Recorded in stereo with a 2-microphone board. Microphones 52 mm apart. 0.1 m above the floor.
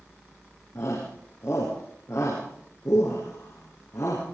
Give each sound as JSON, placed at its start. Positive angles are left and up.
{"t": 0.8, "sound": "a shout", "side_deg": 65, "distance_m": 7.0}